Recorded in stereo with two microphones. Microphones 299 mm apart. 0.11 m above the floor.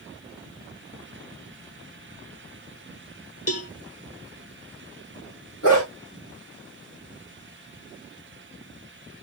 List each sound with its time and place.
3.5 s a cowbell: 55° left (ahead or behind), 0.6 m
5.6 s a dog barking: 50° left (ahead or behind), 4 m